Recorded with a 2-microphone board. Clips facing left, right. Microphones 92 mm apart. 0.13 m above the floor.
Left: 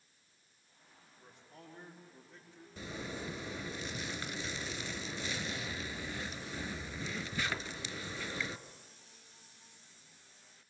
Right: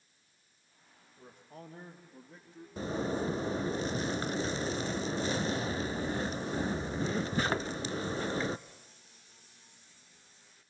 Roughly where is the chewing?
I don't hear chewing.